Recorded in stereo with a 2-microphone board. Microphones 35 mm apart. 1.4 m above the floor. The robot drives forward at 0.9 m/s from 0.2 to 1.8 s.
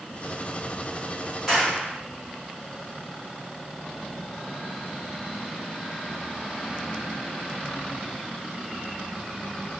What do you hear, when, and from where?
1.5 s a clap: 5° left (ahead or behind), 6 m